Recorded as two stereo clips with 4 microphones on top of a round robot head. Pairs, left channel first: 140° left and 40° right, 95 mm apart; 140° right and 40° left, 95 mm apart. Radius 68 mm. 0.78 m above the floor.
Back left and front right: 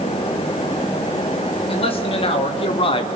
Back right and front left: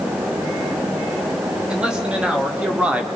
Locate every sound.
1.7 s a man speaking: 120° left, 3.5 m; by 3.1 s 115° left, 2 m